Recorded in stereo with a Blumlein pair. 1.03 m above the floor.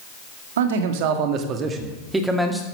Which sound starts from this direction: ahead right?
A man speaking, at 0.6 s.